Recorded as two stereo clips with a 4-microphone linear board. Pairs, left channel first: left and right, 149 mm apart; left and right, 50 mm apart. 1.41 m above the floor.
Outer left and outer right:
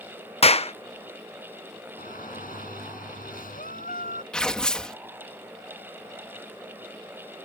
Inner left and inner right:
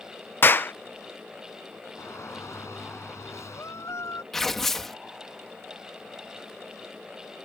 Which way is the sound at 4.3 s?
5° left (ahead or behind).